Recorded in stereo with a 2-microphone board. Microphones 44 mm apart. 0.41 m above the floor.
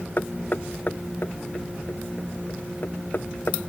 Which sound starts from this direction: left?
Knocking, at 0.2 s.